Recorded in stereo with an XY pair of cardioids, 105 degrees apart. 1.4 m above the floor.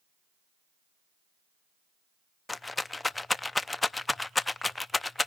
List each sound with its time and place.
2.5 s a rattle: 15° left, 0.6 m